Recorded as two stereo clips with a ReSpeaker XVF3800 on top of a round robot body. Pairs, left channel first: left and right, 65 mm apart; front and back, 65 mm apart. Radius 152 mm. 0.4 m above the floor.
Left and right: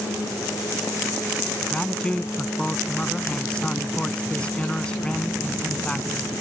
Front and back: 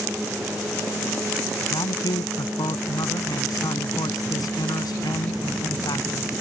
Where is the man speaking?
15° left.